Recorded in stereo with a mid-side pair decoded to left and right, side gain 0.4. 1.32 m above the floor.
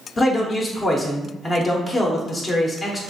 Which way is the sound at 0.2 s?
30° left.